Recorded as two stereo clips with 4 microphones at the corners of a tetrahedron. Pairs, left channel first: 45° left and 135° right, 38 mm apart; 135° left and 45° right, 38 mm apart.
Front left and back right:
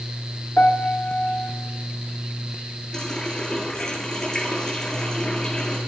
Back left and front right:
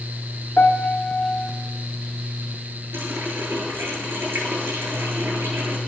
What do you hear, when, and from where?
0.6 s a piano: 90° left, 2.0 m
2.9 s a running tap: 35° right, 8.5 m